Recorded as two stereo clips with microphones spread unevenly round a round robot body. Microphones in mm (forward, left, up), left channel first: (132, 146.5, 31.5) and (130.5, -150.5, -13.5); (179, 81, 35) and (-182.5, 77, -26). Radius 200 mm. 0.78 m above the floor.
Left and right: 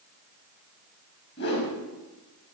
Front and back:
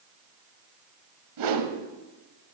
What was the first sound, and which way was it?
A whoosh, 145° left.